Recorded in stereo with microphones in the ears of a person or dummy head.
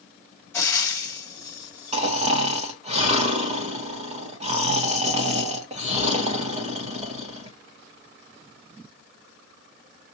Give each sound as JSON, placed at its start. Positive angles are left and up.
{"t": 0.5, "sound": "frying", "side_deg": 5, "distance_m": 2.0}
{"t": 1.9, "sound": "snoring", "side_deg": -40, "distance_m": 1.0}